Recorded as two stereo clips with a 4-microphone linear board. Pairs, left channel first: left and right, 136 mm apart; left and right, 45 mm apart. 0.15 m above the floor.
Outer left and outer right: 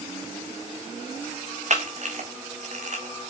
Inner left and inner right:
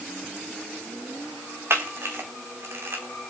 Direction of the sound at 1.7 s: 60° right (ahead or behind).